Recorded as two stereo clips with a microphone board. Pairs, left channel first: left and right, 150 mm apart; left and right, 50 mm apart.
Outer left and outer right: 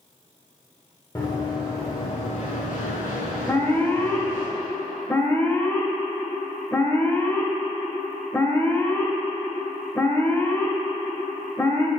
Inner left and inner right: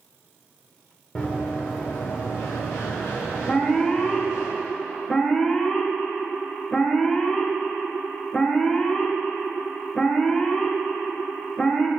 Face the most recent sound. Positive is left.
turn(degrees=15)  # may be behind; listen again after turning